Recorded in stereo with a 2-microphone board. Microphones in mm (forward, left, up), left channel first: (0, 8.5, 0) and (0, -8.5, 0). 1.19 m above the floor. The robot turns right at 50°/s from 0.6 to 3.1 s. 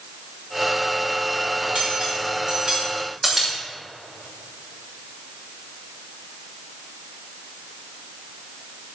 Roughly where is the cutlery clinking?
Right.